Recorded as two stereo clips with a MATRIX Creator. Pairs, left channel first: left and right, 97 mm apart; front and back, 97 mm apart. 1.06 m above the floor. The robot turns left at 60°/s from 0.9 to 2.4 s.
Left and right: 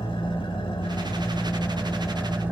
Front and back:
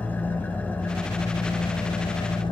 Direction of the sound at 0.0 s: 70° left.